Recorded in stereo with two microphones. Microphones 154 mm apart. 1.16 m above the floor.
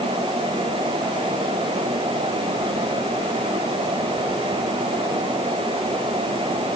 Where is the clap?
I don't hear a clap.